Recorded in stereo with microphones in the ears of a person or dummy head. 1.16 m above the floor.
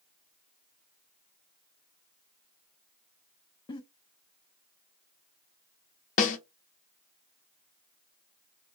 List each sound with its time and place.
3.7 s a giggle: 25° left (ahead or behind), 0.5 m
6.2 s a snare drum: 45° left (ahead or behind), 0.8 m